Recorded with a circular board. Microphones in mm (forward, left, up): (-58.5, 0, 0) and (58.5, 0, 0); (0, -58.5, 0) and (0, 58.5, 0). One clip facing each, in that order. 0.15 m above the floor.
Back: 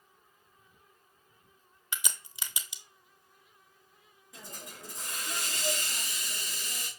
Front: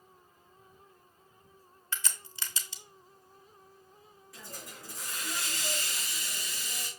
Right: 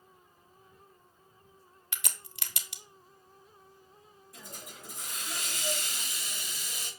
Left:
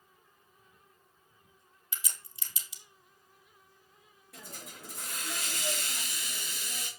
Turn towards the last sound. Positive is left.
turn(degrees=110)